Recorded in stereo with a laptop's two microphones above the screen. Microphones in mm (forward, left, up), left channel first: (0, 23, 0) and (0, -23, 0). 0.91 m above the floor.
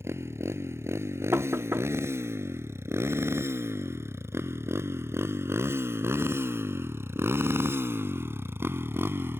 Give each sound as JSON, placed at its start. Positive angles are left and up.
{"t": 0.0, "sound": "a motorcycle", "side_deg": -80}
{"t": 1.3, "sound": "knocking", "side_deg": -70}